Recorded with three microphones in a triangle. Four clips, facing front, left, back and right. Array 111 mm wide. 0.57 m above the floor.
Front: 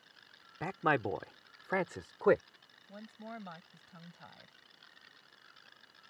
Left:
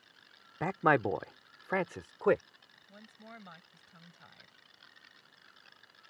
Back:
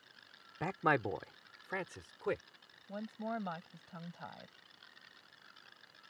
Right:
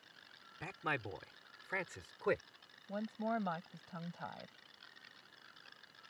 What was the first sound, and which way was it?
A man speaking, 95° left.